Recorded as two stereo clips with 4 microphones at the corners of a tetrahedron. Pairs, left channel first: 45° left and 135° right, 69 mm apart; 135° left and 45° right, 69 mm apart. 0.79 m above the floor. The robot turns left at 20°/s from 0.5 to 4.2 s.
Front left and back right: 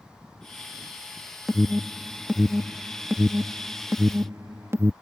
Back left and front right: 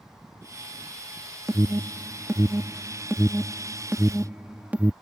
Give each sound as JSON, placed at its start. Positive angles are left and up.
{"t": 1.5, "sound": "an alarm", "azimuth_deg": -50}